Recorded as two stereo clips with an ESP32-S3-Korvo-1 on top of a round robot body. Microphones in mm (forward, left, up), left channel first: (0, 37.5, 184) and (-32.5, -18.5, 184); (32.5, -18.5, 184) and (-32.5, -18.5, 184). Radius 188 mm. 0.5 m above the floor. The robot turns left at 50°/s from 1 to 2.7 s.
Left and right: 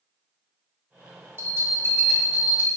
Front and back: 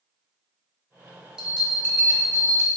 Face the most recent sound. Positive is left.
turn(degrees=-175)